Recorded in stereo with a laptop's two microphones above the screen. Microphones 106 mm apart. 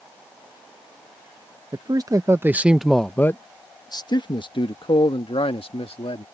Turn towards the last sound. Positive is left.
turn(degrees=65)  # may be behind; listen again after turning